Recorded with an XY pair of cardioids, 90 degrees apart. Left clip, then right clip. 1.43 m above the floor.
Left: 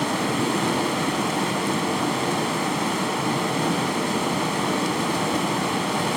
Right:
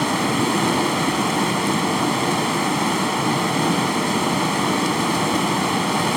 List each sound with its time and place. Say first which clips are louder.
0.0 s running water: right 3 dB; 25° right, 0.9 m